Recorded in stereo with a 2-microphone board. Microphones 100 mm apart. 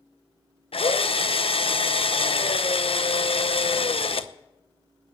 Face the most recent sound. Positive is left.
turn(degrees=65)  # may be behind; listen again after turning